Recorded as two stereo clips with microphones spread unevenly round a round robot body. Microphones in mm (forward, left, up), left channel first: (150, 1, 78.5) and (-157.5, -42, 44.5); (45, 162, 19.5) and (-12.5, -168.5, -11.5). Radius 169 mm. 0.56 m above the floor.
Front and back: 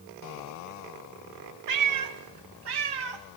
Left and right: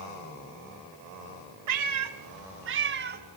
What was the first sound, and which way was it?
A cat meowing, 140° right.